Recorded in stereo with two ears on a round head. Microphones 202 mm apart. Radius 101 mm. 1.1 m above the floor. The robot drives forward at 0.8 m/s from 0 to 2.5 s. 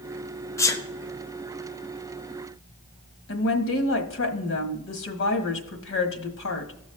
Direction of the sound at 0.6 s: 15° left (ahead or behind).